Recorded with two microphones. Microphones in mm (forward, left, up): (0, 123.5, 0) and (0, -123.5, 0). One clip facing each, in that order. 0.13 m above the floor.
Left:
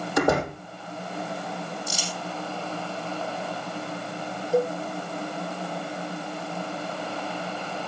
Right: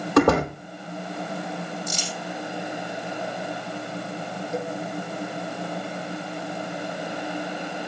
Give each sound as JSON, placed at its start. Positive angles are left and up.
{"t": 0.2, "sound": "a door slam", "side_deg": -70, "distance_m": 3.5}
{"t": 1.9, "sound": "crumpling", "side_deg": 10, "distance_m": 4.5}
{"t": 4.5, "sound": "a cowbell", "side_deg": 35, "distance_m": 1.3}